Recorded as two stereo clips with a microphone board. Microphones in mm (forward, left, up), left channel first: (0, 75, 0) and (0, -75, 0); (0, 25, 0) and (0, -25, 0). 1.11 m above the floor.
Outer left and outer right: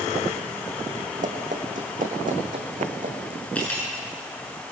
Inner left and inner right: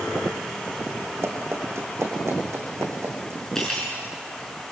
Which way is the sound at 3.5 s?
10° left (ahead or behind).